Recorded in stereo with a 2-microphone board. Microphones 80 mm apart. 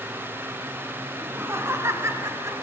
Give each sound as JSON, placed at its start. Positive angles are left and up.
{"t": 1.2, "sound": "laughter", "side_deg": -25, "distance_m": 1.2}